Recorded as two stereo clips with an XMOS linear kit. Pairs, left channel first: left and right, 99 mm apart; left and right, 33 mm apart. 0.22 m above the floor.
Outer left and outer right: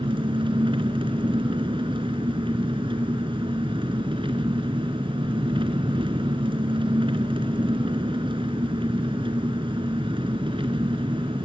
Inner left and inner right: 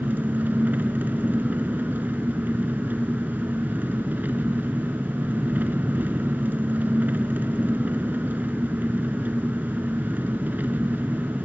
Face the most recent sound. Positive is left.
turn(degrees=-60)  # may be behind; listen again after turning